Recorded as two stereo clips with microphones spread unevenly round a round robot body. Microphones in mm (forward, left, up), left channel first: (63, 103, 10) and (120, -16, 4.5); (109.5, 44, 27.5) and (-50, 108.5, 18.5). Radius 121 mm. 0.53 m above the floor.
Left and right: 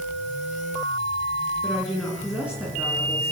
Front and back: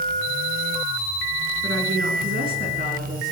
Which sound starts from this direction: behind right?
A woman speaking, at 1.6 s.